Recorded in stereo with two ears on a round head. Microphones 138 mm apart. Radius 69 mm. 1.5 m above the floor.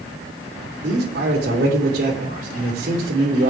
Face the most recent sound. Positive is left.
turn(degrees=-70)  # may be behind; listen again after turning